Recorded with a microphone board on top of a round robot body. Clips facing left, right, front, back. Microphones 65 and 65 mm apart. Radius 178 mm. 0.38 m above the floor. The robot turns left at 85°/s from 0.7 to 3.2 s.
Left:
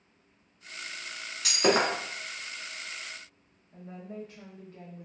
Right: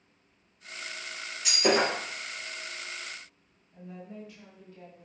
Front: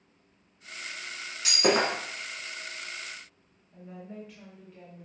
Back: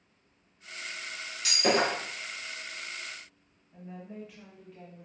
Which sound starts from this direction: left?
A woman speaking, at 3.7 s.